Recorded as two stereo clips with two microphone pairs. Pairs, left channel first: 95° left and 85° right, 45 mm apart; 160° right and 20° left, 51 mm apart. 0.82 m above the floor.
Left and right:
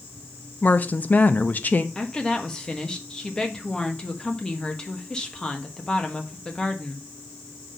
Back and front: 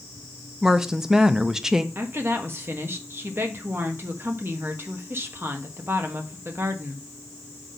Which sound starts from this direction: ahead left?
A woman speaking, at 1.9 s.